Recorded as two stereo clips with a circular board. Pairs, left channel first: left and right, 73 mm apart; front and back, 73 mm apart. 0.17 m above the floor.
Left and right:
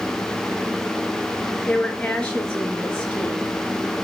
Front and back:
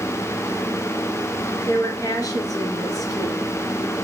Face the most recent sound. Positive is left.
turn(degrees=15)